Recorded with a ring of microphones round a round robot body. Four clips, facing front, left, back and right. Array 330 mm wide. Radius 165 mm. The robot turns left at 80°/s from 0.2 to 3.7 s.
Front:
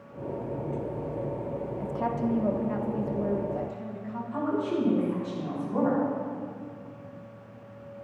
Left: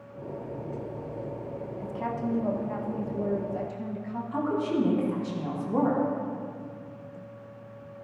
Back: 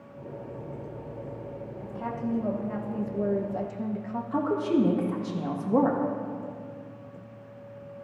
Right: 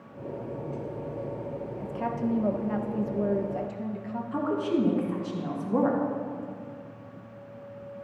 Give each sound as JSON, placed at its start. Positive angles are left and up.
{"t": 1.8, "sound": "a woman speaking", "azimuth_deg": -10, "distance_m": 0.8}
{"t": 4.3, "sound": "a woman speaking", "azimuth_deg": -165, "distance_m": 1.7}